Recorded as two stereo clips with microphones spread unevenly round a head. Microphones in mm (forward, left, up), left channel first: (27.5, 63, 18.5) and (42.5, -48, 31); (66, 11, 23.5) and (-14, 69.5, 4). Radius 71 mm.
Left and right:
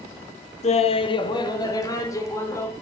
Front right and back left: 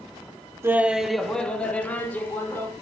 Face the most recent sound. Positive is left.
turn(degrees=30)